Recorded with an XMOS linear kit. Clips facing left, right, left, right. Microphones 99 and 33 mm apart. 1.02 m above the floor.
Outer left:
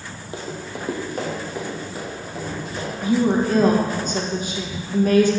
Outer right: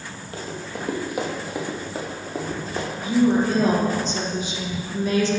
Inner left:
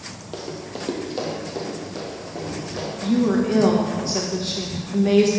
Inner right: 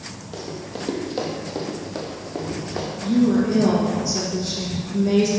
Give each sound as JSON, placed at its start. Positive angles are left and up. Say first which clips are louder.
{"t": 0.3, "sound": "running footsteps", "louder": "outer left 1 dB, even", "side_deg": 20, "distance_m": 1.1}
{"t": 3.0, "sound": "a woman speaking", "louder": "even, inner right 1 dB", "side_deg": 45, "distance_m": 1.1}